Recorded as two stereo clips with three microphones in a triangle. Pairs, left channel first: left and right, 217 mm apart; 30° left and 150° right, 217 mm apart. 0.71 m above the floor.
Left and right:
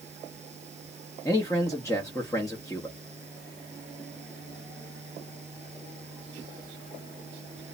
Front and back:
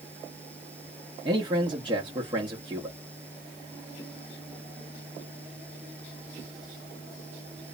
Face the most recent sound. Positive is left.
turn(degrees=155)